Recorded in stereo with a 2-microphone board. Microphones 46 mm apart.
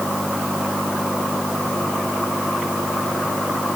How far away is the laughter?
No laughter in this recording.